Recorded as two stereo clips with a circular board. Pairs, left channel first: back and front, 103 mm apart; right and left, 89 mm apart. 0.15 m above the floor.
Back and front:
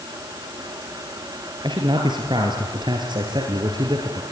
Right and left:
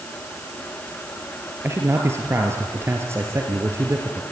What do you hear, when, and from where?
1.6 s a man speaking: 35° left, 2.5 m